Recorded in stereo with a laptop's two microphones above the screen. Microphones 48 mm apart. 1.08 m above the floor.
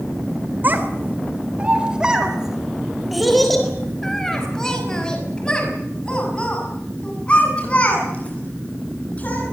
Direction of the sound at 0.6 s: 45° right (ahead or behind).